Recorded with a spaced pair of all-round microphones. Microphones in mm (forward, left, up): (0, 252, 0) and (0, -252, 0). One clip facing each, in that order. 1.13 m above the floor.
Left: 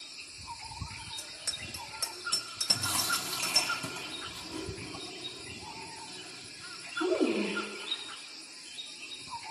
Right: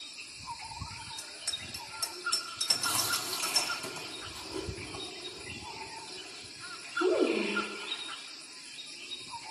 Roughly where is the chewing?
Left.